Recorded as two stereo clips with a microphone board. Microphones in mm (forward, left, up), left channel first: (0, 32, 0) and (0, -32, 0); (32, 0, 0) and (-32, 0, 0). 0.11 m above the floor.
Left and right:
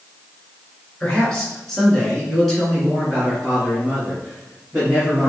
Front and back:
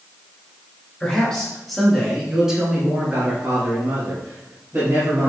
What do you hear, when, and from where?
1.0 s a man speaking: 40° left, 1.7 m; by 5.3 s 165° right, 2.5 m